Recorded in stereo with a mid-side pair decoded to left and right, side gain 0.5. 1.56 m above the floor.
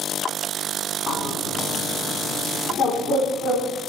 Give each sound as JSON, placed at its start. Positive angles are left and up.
{"t": 1.1, "sound": "a bird", "azimuth_deg": 60, "distance_m": 3.5}